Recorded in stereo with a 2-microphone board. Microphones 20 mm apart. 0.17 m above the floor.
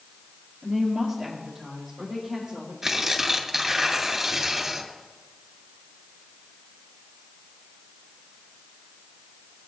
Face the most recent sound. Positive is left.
turn(degrees=-20)  # may be behind; listen again after turning